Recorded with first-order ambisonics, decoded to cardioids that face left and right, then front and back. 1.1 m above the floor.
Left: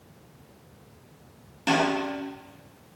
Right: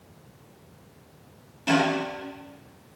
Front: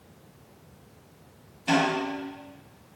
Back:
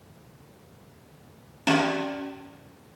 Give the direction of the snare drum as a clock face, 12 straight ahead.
7 o'clock.